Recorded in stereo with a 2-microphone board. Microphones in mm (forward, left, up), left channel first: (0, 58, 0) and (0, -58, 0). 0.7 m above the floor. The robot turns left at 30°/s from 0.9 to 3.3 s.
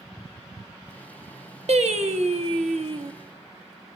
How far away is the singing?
About 0.8 m.